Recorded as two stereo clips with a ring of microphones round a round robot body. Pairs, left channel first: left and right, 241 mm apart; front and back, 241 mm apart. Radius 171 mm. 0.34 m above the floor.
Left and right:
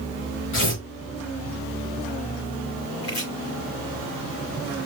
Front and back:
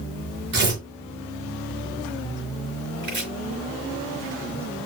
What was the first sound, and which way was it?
Tearing paper, 140° left.